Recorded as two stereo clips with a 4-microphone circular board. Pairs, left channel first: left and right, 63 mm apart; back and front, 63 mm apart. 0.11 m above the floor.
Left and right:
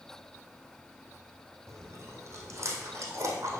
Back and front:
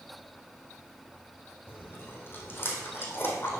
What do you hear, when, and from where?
1.7 s chewing: 130° right, 2 m